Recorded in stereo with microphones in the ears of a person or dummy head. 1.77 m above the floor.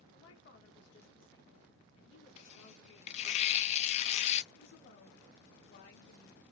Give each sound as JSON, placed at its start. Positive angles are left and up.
{"t": 0.1, "sound": "a woman speaking", "side_deg": 65, "distance_m": 1.1}
{"t": 2.4, "sound": "tearing paper", "side_deg": 35, "distance_m": 0.6}
{"t": 4.5, "sound": "a woman speaking", "side_deg": 60, "distance_m": 1.2}